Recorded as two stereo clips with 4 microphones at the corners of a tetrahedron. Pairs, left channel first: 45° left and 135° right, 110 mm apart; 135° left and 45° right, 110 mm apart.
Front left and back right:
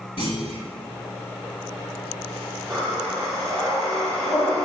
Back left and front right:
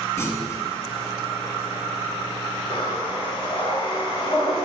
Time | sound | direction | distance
0.2 | a clunk | 70° left | 0.9 m
2.7 | breathing | 130° left | 1.2 m